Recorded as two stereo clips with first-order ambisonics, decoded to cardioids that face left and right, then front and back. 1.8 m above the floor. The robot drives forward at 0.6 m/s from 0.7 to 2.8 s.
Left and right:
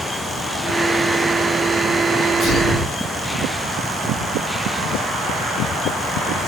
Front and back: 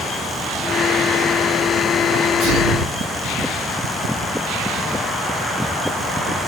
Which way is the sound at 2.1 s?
150° left.